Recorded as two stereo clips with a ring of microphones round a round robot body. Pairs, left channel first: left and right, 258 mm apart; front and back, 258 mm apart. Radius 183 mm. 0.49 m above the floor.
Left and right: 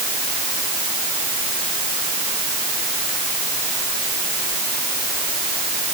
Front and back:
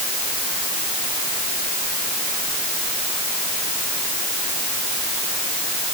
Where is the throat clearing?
I don't hear throat clearing.